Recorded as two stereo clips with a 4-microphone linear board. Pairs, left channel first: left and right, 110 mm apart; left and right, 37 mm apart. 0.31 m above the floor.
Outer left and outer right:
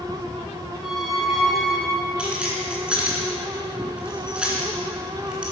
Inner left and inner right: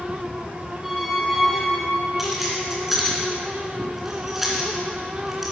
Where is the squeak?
5° right (ahead or behind), 1.3 m.